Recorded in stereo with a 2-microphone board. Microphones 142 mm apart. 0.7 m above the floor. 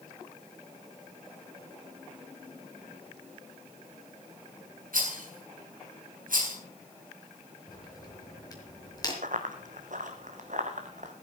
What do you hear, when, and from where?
4.9 s a rattle: 75° right (ahead or behind), 7.5 m
7.7 s a crack: 25° left (ahead or behind), 5.5 m
9.2 s running footsteps: 70° right (ahead or behind), 2 m; by 11.1 s 60° right (ahead or behind), 3 m